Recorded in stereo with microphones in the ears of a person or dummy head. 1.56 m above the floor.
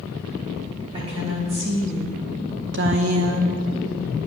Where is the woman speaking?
25° right (ahead or behind), 3.5 m; by 3.6 s 75° right (ahead or behind), 1.4 m.